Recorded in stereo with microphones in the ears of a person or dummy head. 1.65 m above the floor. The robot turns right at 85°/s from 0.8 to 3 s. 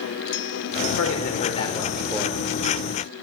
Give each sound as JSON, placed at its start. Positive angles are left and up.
{"t": 1.0, "sound": "a man speaking", "azimuth_deg": 95, "distance_m": 5.0}